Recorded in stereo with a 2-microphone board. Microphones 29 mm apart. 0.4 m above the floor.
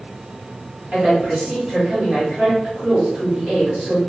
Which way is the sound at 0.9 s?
15° right (ahead or behind).